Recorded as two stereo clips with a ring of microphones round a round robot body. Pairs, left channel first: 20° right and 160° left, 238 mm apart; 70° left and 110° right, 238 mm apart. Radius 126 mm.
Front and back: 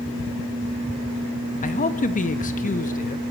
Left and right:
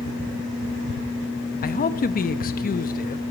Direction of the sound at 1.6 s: 25° left.